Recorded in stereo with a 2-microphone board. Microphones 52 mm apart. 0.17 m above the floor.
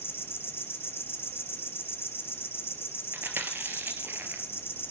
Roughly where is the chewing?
Right.